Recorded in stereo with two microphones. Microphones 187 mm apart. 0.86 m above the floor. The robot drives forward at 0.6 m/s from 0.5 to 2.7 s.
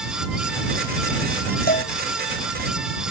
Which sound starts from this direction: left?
A cowbell, at 1.7 s.